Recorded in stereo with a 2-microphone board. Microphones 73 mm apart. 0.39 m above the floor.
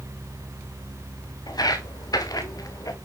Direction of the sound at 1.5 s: 60° left (ahead or behind).